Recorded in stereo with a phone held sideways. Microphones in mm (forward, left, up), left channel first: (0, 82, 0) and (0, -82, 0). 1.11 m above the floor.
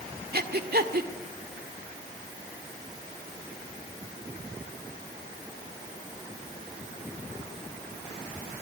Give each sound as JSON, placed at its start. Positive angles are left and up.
{"t": 0.3, "sound": "breathing", "side_deg": -70, "distance_m": 1.7}